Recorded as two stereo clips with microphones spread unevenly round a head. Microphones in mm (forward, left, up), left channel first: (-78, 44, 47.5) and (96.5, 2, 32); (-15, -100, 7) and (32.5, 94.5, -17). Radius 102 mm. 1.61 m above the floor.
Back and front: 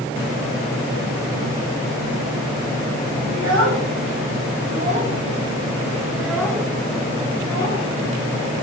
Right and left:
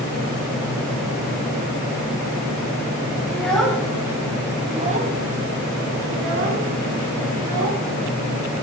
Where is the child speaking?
25° right, 1.5 m; by 7.8 s 95° left, 2 m.